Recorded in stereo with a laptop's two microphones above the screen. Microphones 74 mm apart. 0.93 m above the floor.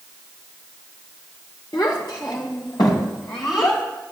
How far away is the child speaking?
About 1.6 m.